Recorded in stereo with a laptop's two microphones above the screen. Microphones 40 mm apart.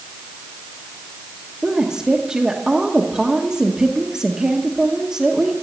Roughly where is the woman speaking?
Centre.